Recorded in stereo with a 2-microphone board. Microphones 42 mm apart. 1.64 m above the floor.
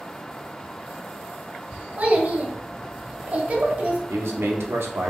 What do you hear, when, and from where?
2.0 s a child speaking: 35° right (ahead or behind), 0.7 m
4.1 s a man speaking: 75° right (ahead or behind), 0.6 m